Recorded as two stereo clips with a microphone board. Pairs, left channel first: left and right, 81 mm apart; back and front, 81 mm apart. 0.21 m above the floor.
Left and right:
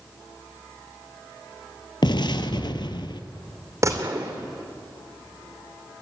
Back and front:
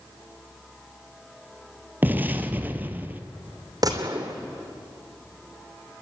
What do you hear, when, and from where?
2.0 s an explosion: 70° left, 0.9 m
3.8 s a gunshot: 40° right, 2.5 m